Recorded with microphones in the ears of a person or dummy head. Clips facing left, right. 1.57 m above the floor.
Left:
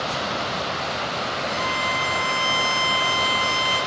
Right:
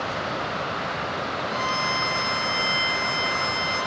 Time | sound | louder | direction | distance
1.5 | a violin | left 1 dB | 70° left (ahead or behind) | 6 m